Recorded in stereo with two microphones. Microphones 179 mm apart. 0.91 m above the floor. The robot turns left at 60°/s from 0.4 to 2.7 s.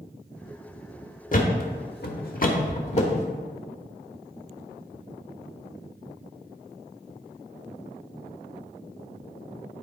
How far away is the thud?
About 1.0 m.